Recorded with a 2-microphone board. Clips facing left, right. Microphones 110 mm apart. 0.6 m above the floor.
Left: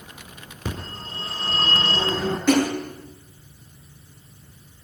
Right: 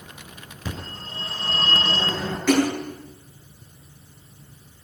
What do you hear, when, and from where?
0.7 s a phone ringing: 45° left (ahead or behind), 4.5 m
2.5 s a splash: 15° left (ahead or behind), 7 m